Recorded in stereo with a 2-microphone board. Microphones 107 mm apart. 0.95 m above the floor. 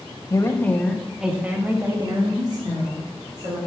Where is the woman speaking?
30° left (ahead or behind), 1.3 m; by 3.6 s 50° right (ahead or behind), 3 m.